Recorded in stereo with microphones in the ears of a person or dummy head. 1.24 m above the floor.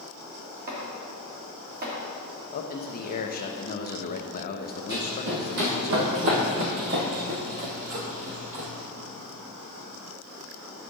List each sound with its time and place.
0.7 s chopping: 50° right (ahead or behind), 2 m
2.5 s a man speaking: 45° left (ahead or behind), 0.8 m
4.9 s running footsteps: 50° right (ahead or behind), 2.5 m; by 8.7 s 35° right (ahead or behind), 1.8 m